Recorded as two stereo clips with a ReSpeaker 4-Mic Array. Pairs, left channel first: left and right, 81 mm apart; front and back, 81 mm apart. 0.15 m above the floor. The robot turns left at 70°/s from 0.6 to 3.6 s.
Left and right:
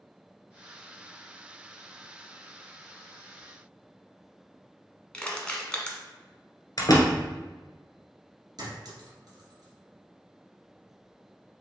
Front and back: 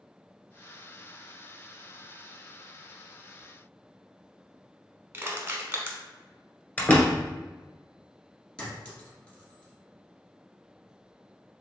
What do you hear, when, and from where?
5.1 s crushing: 160° left, 1.0 m
6.8 s a door slam: 65° left, 1.4 m
8.6 s a clink: 75° right, 1.9 m